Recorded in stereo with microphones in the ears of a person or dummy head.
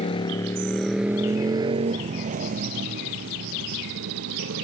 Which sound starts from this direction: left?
A motorcycle, at 0.0 s.